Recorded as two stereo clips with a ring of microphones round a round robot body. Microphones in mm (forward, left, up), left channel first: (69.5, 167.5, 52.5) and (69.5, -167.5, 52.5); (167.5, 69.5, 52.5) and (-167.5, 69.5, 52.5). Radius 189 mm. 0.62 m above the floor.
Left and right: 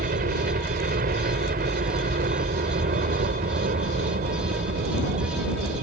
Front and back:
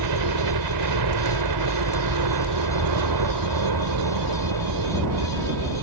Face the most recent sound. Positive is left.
turn(degrees=-155)